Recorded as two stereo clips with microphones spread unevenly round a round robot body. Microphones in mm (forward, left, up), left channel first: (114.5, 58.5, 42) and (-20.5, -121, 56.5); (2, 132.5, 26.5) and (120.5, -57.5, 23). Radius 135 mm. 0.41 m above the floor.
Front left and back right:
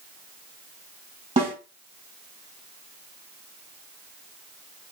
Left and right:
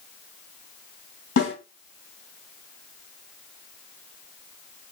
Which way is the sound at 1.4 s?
165° left.